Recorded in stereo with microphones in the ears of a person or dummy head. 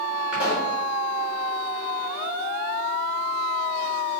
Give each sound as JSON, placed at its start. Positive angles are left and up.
{"t": 0.3, "sound": "a pop", "side_deg": -5, "distance_m": 3.5}